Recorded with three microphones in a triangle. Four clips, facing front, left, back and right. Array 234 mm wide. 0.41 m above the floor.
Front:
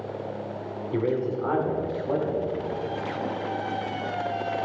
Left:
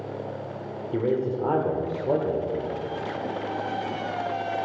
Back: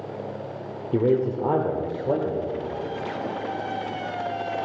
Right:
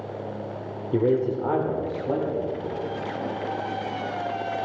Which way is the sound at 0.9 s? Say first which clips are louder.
Right 3 dB, back 5 dB; 135° right.